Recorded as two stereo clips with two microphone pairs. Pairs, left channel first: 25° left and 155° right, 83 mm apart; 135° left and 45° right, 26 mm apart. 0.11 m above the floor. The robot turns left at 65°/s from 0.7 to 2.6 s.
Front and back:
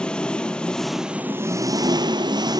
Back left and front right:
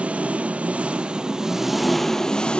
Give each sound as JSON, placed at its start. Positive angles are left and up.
{"t": 0.0, "sound": "an engine running", "azimuth_deg": -50, "distance_m": 0.8}